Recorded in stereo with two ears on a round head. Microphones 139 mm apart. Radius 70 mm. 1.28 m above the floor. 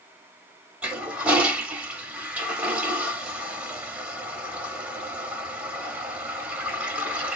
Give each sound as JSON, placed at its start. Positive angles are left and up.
{"t": 0.8, "sound": "a toilet flushing", "side_deg": -10, "distance_m": 1.1}